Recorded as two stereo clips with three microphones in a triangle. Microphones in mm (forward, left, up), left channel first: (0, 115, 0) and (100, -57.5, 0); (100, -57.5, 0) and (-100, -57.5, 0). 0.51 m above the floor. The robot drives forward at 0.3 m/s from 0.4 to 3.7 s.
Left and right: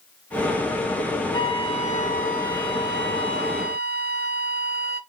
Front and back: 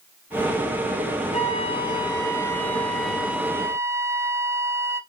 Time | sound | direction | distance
1.3 | a flute | 50° left | 0.9 m